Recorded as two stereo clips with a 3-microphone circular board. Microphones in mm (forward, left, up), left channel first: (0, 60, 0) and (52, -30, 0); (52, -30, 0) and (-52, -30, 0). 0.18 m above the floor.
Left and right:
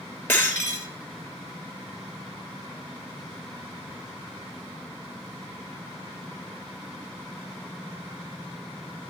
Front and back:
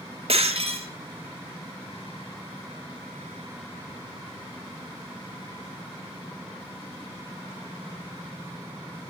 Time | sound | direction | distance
0.3 | breaking glass | 170° right | 2.0 m